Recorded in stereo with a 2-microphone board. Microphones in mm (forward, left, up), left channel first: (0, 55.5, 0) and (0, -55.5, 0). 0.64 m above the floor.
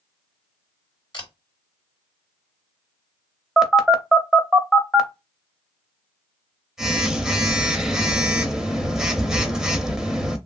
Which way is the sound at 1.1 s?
45° left (ahead or behind).